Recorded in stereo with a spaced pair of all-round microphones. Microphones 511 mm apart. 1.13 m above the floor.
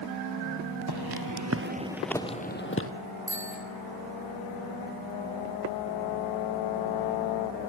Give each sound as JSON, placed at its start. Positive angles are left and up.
{"t": 0.9, "sound": "footsteps", "side_deg": -50, "distance_m": 1.7}
{"t": 3.3, "sound": "a bicycle bell", "side_deg": -40, "distance_m": 7.0}